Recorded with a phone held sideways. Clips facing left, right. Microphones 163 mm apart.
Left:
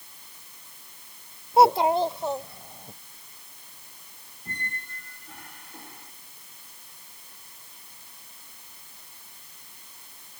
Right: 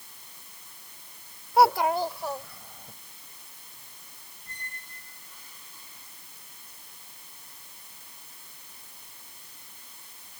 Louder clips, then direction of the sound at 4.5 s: Left 9 dB; 70° left (ahead or behind).